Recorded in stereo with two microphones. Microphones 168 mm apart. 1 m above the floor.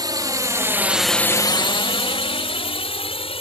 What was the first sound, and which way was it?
A drone, 25° right (ahead or behind).